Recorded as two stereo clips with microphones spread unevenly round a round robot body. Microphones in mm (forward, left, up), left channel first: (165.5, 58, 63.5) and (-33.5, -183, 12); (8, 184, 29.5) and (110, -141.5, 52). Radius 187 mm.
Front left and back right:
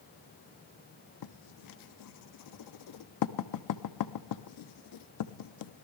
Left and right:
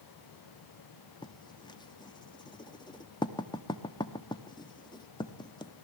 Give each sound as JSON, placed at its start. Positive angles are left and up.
{"t": 1.2, "sound": "writing", "azimuth_deg": 30, "distance_m": 0.7}